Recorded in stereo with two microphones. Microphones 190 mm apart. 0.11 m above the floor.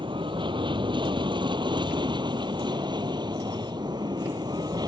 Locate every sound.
0.0 s an aircraft: 25° right (ahead or behind); by 4.9 s 20° right (ahead or behind)